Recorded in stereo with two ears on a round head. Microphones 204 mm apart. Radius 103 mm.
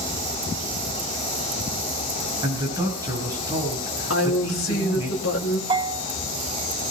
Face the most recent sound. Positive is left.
turn(degrees=-25)  # may be behind; listen again after turning